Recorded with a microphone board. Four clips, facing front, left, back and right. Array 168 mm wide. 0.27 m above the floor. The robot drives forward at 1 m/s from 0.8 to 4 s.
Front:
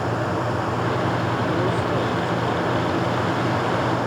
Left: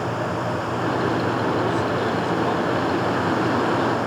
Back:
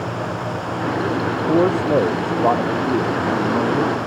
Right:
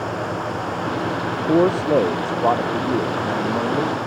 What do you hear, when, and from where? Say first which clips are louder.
1.5 s a man speaking: right 5 dB, back 10 dB; 130° right; by 4.0 s 140° right